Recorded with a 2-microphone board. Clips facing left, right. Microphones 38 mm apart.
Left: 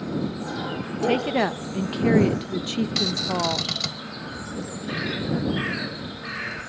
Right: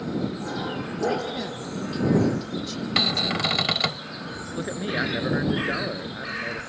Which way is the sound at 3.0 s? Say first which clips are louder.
Right 6 dB; 40° right (ahead or behind).